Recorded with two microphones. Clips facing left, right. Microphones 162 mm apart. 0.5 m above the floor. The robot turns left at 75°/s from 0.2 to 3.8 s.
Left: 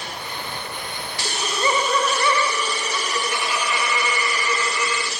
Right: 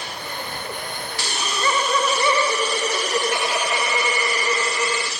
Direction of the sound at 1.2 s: 55° left.